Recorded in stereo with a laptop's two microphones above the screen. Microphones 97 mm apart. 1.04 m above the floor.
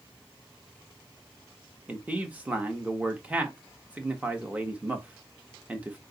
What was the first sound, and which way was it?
A man speaking, 15° right (ahead or behind).